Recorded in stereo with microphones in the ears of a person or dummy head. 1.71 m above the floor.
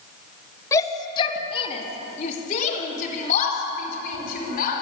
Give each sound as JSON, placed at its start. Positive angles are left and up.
{"t": 0.7, "sound": "a shout", "side_deg": 15, "distance_m": 2.0}